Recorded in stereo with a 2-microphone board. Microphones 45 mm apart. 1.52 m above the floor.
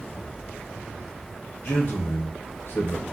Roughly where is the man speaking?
Left.